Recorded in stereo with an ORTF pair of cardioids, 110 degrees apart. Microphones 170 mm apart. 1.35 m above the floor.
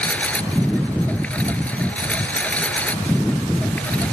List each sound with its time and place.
0.0 s a lawn mower: 10° left